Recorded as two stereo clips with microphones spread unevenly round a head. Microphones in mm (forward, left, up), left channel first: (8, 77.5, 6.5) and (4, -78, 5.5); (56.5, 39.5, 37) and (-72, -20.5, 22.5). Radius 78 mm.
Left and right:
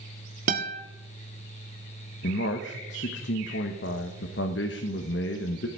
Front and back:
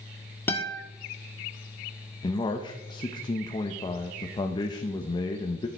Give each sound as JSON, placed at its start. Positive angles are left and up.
{"t": 0.5, "sound": "a guitar", "azimuth_deg": -50, "distance_m": 1.5}
{"t": 2.2, "sound": "a man speaking", "azimuth_deg": 85, "distance_m": 1.1}